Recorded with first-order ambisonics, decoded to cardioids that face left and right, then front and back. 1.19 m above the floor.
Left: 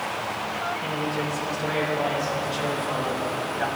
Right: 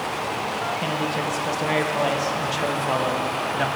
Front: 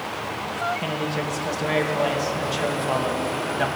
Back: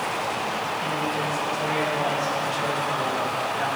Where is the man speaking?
55° right, 1.0 m.